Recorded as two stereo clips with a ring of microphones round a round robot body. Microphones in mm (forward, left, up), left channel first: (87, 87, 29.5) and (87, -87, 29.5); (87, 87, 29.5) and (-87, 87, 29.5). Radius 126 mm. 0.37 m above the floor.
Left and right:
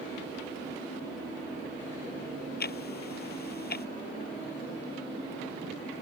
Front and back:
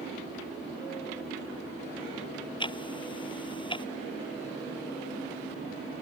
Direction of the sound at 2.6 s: 60° left.